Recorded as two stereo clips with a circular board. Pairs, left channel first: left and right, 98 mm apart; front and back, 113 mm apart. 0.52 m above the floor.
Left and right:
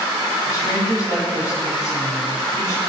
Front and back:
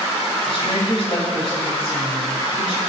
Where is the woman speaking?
35° left, 4 m.